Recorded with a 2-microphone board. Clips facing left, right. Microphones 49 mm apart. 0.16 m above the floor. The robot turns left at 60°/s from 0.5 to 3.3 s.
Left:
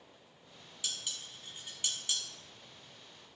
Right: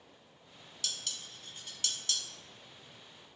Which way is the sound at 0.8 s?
15° left (ahead or behind).